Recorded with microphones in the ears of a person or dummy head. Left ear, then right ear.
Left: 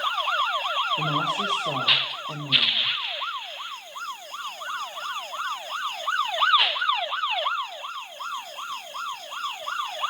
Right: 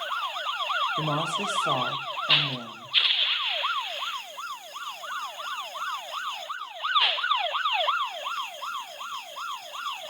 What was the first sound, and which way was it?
A woman speaking, 40° right (ahead or behind).